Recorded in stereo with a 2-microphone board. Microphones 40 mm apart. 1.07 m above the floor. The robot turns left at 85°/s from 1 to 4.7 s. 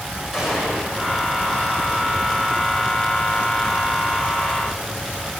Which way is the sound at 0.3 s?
5° right (ahead or behind).